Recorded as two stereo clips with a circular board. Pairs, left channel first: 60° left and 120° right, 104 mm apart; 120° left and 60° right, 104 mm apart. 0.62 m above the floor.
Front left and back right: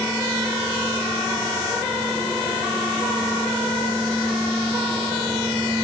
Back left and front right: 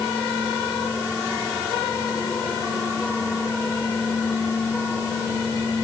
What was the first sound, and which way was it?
Only background noise.